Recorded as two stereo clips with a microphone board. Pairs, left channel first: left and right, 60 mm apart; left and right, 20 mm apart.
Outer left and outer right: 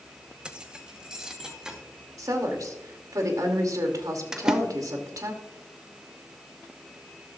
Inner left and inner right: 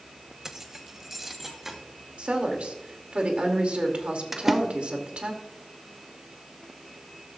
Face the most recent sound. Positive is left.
turn(degrees=-10)  # may be behind; listen again after turning